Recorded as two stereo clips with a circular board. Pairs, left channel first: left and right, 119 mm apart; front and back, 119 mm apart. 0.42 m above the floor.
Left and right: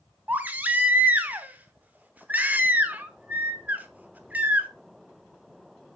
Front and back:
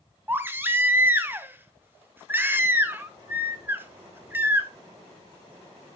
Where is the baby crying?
140° right, 1.0 m.